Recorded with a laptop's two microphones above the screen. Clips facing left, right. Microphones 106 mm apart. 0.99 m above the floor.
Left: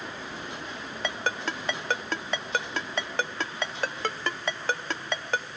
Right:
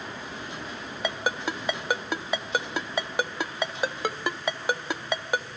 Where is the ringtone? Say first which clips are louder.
Right 2 dB; 10° right (ahead or behind), 0.8 m.